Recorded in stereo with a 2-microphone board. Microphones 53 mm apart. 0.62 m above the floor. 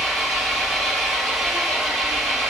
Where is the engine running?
Centre (ahead or behind), 4.5 m.